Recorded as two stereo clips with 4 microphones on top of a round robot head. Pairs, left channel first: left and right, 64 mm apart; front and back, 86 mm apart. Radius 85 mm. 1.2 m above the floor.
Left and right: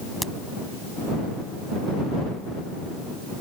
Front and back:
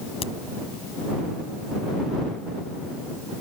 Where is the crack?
Straight ahead.